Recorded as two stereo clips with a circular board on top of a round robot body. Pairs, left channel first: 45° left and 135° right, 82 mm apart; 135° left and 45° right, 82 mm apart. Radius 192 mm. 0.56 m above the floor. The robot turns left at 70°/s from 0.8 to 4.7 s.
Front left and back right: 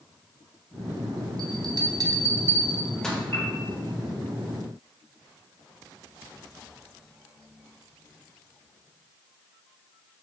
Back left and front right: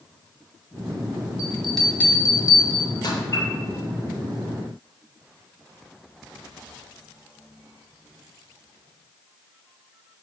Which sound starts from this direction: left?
A piano, at 3.3 s.